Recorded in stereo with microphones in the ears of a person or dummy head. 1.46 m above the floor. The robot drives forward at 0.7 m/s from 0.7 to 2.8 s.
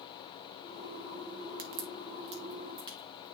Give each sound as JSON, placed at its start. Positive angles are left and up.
{"t": 1.6, "sound": "a crack", "side_deg": -55, "distance_m": 0.8}